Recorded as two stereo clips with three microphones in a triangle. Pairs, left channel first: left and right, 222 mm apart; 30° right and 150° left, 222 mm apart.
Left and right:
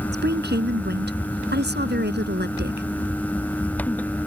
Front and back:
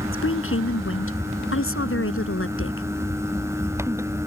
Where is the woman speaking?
50° right.